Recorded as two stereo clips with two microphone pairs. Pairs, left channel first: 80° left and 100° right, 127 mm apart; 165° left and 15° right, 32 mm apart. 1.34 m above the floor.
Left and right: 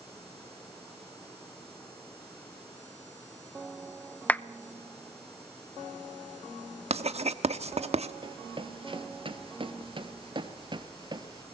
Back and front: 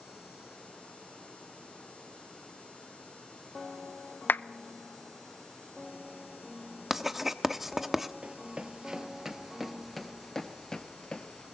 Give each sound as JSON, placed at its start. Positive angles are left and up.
{"t": 4.3, "sound": "a clap", "azimuth_deg": 160, "distance_m": 0.7}
{"t": 6.9, "sound": "writing", "azimuth_deg": -95, "distance_m": 1.1}
{"t": 8.2, "sound": "running footsteps", "azimuth_deg": -60, "distance_m": 1.8}